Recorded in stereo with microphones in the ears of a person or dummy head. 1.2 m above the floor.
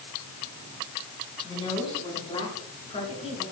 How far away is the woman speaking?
About 7 m.